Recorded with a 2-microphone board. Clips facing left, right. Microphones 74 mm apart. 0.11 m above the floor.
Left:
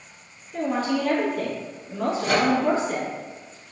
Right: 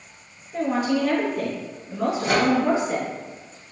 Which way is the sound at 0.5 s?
15° right (ahead or behind).